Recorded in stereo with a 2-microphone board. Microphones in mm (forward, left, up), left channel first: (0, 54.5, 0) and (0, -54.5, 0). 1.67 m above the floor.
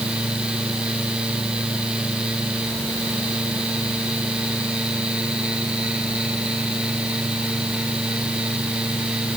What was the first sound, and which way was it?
Only background noise.